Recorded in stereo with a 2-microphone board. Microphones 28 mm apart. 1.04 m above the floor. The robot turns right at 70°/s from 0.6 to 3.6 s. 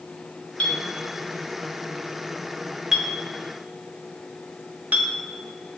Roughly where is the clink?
Left.